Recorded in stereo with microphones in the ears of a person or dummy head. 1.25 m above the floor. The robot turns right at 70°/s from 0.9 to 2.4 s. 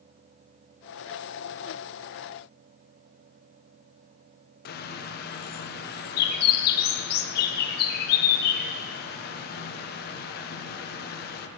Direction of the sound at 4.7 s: 50° left (ahead or behind).